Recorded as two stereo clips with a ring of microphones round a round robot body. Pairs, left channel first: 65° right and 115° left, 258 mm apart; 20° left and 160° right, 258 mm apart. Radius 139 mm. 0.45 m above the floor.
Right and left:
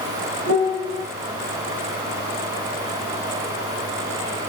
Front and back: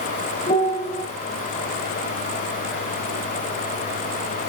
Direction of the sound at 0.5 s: 90° left.